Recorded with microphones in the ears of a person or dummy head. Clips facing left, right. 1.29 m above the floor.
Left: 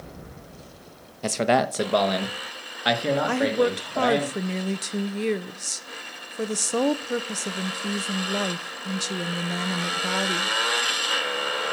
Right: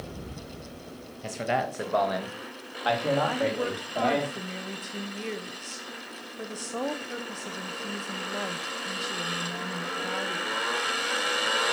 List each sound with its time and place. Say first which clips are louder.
1.2 s a man speaking: left 7 dB; 70° left (ahead or behind), 1.1 m; by 4.3 s 10° left (ahead or behind), 3 m
3.3 s a woman speaking: left 6 dB; 55° left (ahead or behind), 0.8 m